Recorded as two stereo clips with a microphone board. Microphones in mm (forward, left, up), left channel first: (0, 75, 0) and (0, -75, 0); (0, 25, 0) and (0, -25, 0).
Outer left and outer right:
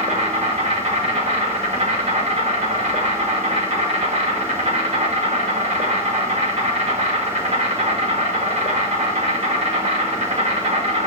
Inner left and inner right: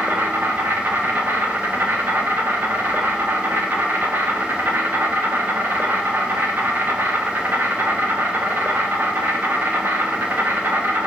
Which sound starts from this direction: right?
An insect, at 0.0 s.